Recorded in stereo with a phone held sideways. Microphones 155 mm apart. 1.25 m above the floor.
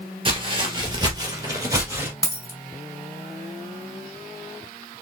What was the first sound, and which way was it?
Footsteps, 35° right (ahead or behind).